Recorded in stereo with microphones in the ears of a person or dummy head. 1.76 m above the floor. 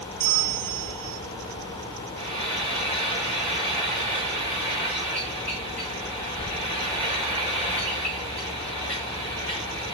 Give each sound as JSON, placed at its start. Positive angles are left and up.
{"t": 0.2, "sound": "a bell", "side_deg": -50, "distance_m": 0.6}
{"t": 2.2, "sound": "frying", "side_deg": 10, "distance_m": 1.5}